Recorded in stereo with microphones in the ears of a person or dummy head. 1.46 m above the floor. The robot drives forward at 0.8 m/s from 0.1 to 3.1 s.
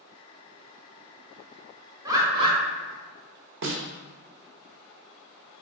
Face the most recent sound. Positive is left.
turn(degrees=-65)  # may be behind; listen again after turning